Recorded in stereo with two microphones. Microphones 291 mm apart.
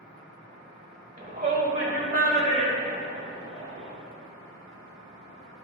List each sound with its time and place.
1.2 s a shout: 25° right (ahead or behind), 1.3 m; by 3.9 s 20° right (ahead or behind), 3 m